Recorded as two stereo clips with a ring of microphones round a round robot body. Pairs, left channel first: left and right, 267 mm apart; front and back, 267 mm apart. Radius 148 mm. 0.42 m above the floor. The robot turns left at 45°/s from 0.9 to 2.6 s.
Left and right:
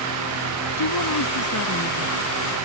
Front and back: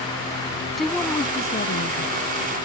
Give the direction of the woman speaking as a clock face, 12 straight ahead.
9 o'clock.